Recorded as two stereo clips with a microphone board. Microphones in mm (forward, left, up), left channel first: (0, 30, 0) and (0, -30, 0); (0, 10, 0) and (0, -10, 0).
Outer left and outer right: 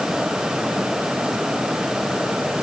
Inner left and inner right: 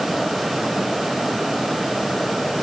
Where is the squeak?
No squeak in this recording.